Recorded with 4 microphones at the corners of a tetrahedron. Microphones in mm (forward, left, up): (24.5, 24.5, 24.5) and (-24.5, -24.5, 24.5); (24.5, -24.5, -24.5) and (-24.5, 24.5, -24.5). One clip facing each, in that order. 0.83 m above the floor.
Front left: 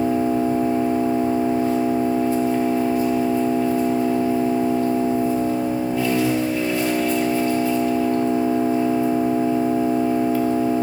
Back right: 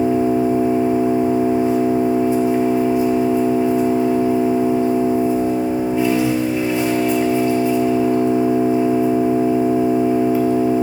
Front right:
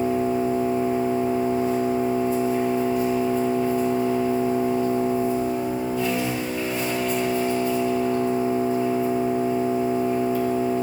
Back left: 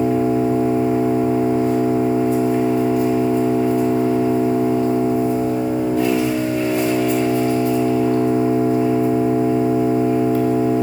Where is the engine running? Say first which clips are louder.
Back right 3 dB, back left 5 dB; 155° left, 1.3 m.